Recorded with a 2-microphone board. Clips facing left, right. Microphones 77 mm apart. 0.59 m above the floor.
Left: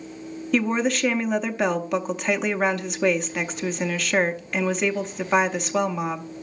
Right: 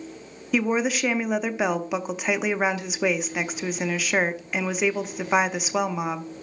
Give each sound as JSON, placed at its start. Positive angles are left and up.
{"t": 0.5, "sound": "a woman speaking", "side_deg": -5, "distance_m": 0.6}